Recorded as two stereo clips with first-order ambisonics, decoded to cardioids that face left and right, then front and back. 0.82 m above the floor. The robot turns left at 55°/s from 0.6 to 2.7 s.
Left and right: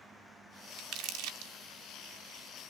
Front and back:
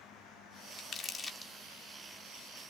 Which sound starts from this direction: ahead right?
Crumpling, at 0.8 s.